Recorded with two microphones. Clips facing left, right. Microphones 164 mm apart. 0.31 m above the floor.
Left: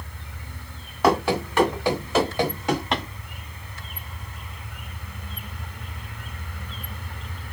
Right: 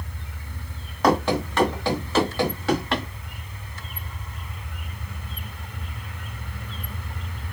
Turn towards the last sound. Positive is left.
turn(degrees=20)  # may be behind; listen again after turning